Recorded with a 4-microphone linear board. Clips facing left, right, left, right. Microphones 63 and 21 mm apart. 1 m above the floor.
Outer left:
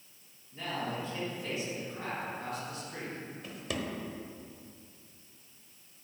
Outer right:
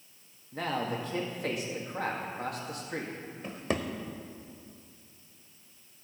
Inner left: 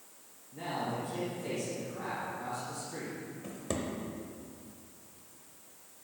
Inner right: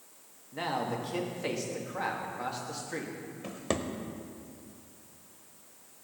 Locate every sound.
0.5 s a man speaking: 65° right (ahead or behind), 2 m
3.4 s a drawer: 40° right (ahead or behind), 0.9 m